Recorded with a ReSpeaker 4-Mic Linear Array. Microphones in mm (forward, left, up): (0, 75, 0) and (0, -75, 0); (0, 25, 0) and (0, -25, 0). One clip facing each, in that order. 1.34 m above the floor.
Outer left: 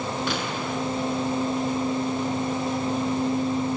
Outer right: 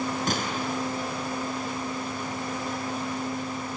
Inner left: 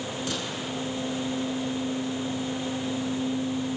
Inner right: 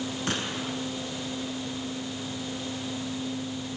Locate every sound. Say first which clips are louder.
0.3 s a gunshot: outer left 1 dB, inner right 1 dB; 45° right (ahead or behind), 6 m